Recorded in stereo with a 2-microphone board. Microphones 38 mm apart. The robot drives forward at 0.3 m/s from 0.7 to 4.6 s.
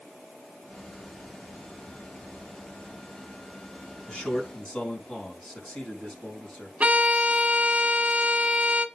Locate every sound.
4.1 s a man speaking: 30° left (ahead or behind), 4 m
6.8 s a violin: 35° right (ahead or behind), 1.1 m